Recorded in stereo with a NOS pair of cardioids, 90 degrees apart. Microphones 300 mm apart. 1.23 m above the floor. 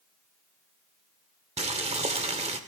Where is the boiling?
25° right, 2 m.